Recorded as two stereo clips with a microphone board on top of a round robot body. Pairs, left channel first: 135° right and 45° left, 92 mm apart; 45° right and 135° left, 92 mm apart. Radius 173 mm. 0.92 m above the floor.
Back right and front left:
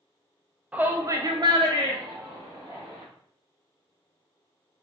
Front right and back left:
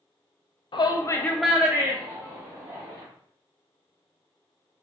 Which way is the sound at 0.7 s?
30° right.